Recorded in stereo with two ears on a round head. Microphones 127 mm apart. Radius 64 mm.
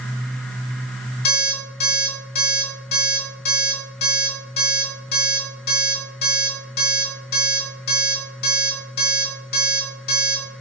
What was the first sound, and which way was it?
An alarm clock, 75° left (ahead or behind).